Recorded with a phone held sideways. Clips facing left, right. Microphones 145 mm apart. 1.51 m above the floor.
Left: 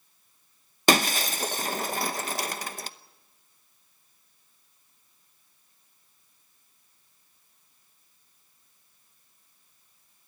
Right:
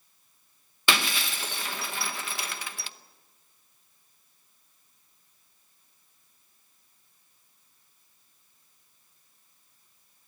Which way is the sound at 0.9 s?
45° left (ahead or behind).